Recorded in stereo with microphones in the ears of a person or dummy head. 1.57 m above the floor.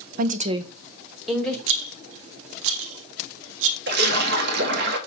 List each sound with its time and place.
0.2 s a woman speaking: 50° right (ahead or behind), 0.8 m; by 1.6 s 5° left (ahead or behind), 1.5 m
1.7 s a rattle: 70° right (ahead or behind), 1.0 m
3.9 s a splash: 60° right (ahead or behind), 1.9 m